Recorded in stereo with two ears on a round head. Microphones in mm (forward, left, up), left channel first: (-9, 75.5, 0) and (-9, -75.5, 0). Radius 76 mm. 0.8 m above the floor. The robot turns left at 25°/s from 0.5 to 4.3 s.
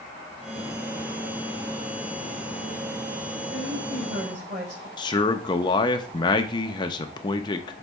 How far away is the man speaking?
About 0.7 m.